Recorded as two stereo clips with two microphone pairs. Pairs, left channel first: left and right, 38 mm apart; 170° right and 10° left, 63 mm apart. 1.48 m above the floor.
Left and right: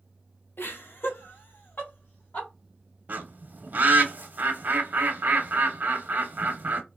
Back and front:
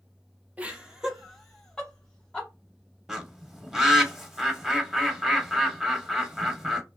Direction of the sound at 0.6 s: 80° left.